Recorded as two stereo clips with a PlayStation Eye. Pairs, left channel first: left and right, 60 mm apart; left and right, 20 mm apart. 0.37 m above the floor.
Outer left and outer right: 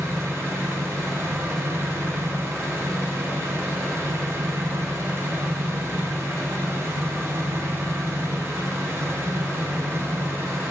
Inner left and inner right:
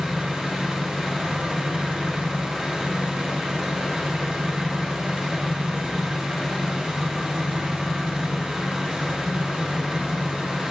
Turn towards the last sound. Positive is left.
turn(degrees=-45)  # may be behind; listen again after turning